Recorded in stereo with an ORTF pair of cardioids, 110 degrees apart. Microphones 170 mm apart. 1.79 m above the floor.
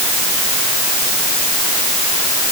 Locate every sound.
Only background noise.